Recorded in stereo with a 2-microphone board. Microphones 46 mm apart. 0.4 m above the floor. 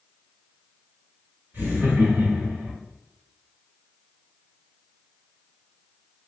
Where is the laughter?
50° right (ahead or behind), 1.3 m.